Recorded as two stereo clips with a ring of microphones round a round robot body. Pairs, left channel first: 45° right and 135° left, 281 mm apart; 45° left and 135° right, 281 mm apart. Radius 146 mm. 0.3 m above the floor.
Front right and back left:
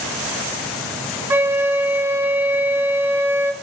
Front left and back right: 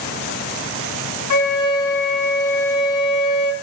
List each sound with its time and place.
1.3 s a flute: 55° left, 3 m